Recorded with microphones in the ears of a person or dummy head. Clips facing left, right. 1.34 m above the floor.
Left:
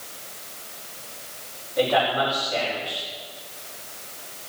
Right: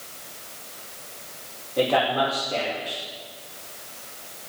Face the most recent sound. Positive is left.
turn(degrees=-40)  # may be behind; listen again after turning